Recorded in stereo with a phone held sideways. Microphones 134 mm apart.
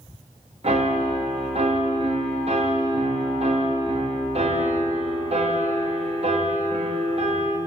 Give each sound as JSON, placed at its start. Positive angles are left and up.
{"t": 0.6, "sound": "a piano", "side_deg": -50, "distance_m": 0.7}